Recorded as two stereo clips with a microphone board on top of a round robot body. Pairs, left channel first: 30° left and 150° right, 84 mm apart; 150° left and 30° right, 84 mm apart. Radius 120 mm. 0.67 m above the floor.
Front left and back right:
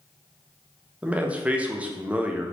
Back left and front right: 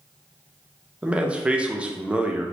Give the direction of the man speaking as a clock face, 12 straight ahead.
3 o'clock.